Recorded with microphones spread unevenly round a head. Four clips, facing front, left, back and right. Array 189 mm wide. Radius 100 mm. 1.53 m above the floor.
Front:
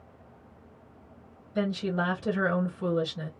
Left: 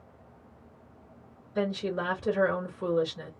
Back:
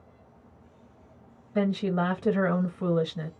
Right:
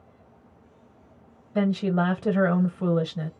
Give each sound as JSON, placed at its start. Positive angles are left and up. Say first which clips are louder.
{"t": 1.6, "sound": "a woman speaking", "louder": "right 6 dB, back 3 dB", "azimuth_deg": -110, "distance_m": 1.3}